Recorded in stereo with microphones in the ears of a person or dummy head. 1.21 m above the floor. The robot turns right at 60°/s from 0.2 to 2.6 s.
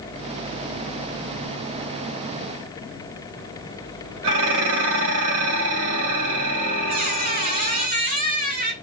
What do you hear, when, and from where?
4.2 s dishes clattering: 70° right (ahead or behind), 4 m
6.9 s a squeak: 50° right (ahead or behind), 3 m